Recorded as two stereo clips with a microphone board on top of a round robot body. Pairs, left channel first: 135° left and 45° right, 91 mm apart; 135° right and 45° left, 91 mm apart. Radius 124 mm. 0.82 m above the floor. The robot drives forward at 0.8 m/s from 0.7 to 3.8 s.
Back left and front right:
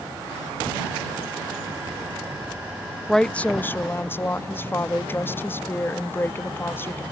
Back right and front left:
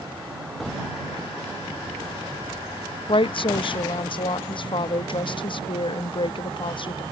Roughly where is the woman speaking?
Behind right.